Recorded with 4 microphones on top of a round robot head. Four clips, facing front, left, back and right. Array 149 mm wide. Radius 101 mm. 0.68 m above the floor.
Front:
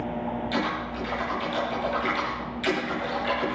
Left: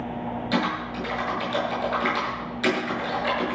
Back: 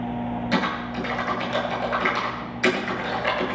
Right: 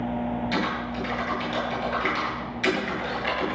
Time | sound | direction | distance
0.5 | typing on a keyboard | 140° left | 8 m